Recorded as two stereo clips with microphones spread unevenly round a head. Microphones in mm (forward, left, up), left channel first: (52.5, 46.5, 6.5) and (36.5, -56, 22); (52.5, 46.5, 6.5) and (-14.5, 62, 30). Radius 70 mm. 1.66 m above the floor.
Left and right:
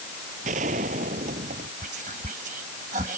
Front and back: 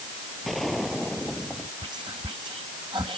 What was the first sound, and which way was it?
A gunshot, 105° right.